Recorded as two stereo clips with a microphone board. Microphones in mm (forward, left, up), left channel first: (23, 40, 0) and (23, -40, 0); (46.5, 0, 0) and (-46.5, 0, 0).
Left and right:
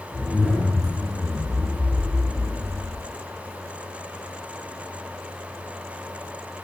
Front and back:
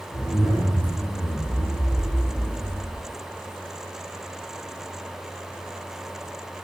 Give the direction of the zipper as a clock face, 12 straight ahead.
12 o'clock.